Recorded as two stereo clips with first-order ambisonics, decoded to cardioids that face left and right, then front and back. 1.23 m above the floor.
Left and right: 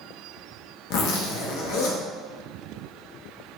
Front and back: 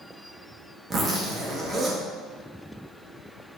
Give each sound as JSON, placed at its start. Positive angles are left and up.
{"t": 0.9, "sound": "a zipper", "azimuth_deg": 110, "distance_m": 0.9}